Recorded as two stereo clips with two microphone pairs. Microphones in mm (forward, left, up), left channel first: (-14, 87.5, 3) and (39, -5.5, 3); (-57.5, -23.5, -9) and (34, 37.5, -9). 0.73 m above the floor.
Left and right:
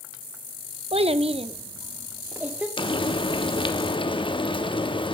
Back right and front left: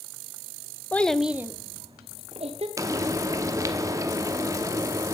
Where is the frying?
90° left, 0.9 m.